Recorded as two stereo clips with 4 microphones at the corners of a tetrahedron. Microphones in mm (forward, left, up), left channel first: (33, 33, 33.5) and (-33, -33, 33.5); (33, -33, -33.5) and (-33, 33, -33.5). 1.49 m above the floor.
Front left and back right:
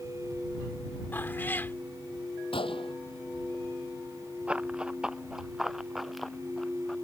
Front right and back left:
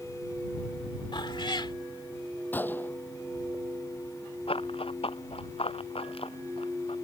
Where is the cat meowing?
20° right.